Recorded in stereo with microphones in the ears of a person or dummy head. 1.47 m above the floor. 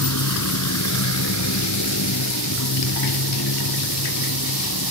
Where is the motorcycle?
80° left.